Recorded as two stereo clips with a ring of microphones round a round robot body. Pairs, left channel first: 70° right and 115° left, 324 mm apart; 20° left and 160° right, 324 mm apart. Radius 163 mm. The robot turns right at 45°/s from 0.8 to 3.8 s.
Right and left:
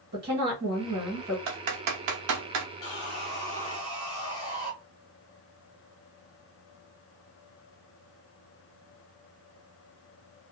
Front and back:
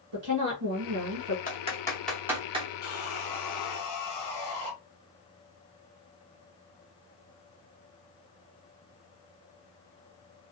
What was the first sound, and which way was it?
A woman speaking, 170° left.